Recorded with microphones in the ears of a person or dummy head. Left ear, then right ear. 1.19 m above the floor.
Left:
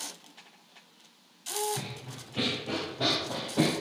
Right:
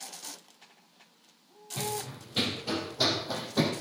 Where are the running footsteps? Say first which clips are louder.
Right 5 dB; 60° right (ahead or behind), 2.5 m; by 3.7 s 70° right (ahead or behind), 3.5 m.